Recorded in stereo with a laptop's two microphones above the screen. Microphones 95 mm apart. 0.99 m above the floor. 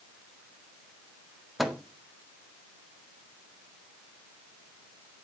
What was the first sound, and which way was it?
A microwave, centre (ahead or behind).